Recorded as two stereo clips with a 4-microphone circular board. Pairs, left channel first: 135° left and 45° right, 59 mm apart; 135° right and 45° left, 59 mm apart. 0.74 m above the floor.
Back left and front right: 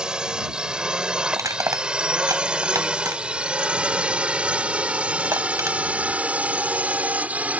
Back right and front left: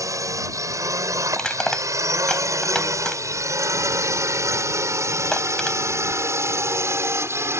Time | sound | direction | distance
0.0 | a drone | 30° left | ?
1.3 | crushing | 60° right | ?